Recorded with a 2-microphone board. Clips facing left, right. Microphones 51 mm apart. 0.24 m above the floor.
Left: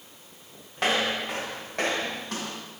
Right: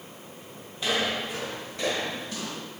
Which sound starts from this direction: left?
Footsteps, at 0.8 s.